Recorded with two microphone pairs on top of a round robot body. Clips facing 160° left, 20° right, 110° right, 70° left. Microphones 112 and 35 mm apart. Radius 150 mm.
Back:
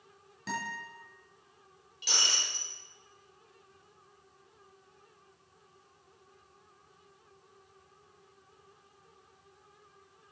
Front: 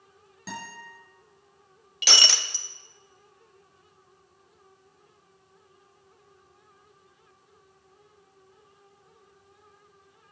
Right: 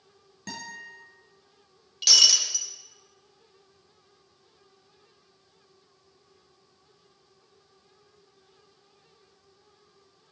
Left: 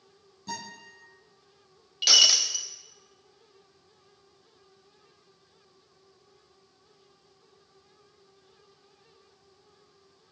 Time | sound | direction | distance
0.5 | a guitar | 105° right | 5.5 m
2.0 | breaking glass | straight ahead | 0.8 m